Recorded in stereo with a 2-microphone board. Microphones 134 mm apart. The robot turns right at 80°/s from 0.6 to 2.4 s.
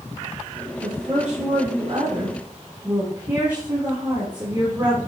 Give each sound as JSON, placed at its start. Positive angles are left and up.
{"t": 0.8, "sound": "a woman speaking", "azimuth_deg": -145, "distance_m": 4.5}